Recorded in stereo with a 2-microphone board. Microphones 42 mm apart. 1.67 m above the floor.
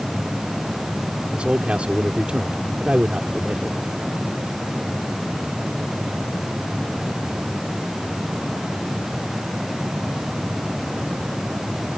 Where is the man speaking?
30° right (ahead or behind).